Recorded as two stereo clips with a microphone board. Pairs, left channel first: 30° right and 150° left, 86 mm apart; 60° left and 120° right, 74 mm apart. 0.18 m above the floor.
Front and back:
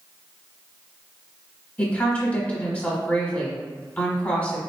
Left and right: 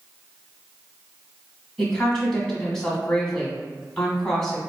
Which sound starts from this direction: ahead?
A woman speaking, at 1.8 s.